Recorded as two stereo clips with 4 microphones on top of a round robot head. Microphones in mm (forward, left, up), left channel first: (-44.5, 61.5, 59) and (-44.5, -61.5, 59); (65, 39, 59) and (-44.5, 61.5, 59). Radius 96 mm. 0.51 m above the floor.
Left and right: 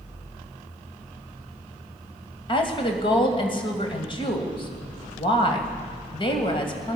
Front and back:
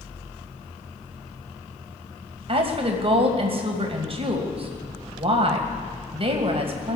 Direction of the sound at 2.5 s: 135° left.